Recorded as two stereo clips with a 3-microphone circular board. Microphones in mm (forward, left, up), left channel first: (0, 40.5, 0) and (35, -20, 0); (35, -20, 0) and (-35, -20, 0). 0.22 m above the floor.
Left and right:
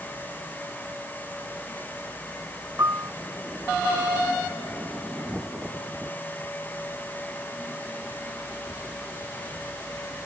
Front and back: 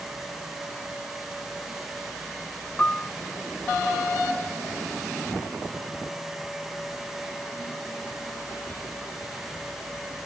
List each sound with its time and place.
2.8 s a piano: 60° right